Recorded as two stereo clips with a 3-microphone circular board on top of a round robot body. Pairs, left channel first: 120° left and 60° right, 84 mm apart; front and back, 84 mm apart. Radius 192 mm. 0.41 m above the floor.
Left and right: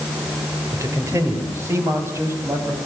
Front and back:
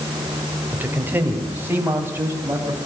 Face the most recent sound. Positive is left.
turn(degrees=-120)